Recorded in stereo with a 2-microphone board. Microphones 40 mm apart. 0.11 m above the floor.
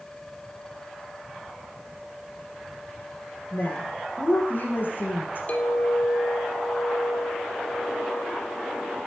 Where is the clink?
35° left (ahead or behind), 1.8 m.